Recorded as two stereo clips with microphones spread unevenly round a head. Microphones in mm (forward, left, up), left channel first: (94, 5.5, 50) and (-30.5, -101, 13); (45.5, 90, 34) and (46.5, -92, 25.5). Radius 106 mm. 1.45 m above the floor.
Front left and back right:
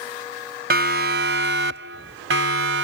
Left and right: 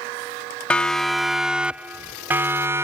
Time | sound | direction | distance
0.7 | a siren | 175° left | ?